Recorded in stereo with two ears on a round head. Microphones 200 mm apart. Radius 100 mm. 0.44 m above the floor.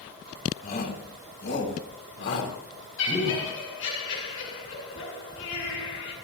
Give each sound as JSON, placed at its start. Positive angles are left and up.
{"t": 0.6, "sound": "a shout", "side_deg": 40, "distance_m": 3.0}
{"t": 3.0, "sound": "laughter", "side_deg": 60, "distance_m": 9.5}